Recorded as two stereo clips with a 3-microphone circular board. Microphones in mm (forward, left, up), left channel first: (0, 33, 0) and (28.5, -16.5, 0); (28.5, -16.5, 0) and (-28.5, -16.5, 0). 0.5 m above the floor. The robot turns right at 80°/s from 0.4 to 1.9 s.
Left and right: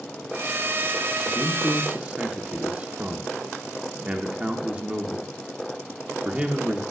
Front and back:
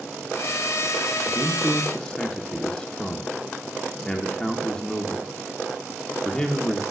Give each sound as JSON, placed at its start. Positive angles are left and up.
{"t": 1.3, "sound": "a man speaking", "azimuth_deg": -95, "distance_m": 1.1}